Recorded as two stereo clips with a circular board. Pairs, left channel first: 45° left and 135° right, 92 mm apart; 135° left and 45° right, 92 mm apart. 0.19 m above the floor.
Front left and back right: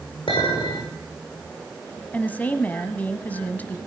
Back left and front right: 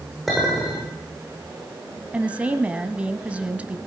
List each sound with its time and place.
0.3 s a clink: 45° left, 8.5 m
2.1 s a woman speaking: 10° left, 1.1 m